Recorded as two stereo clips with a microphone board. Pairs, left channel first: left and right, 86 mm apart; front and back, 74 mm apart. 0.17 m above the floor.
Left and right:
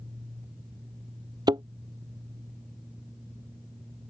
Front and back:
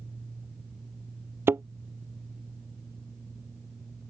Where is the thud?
125° right.